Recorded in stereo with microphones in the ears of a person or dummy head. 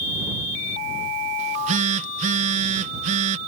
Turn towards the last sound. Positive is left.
turn(degrees=-40)  # may be behind; listen again after turning